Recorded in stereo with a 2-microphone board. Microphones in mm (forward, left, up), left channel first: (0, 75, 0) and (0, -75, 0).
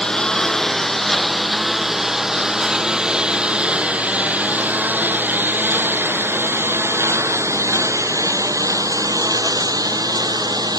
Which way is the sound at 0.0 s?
5° left (ahead or behind).